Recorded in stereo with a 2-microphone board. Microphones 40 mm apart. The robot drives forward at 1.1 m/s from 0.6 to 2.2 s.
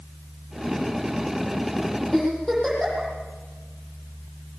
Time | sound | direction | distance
2.1 | a giggle | 10° left (ahead or behind) | 9 m